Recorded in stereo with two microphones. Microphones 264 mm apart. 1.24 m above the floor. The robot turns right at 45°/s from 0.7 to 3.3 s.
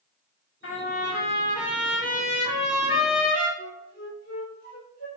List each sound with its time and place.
0.6 s a trumpet: 130° left, 1.3 m; by 3.5 s 110° right, 1.3 m
3.6 s a flute: 35° left (ahead or behind), 1.1 m